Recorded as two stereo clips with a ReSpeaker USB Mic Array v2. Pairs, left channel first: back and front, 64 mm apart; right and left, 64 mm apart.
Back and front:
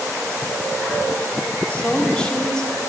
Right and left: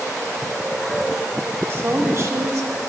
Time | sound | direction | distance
1.7 | a woman speaking | 120° left | 1.2 m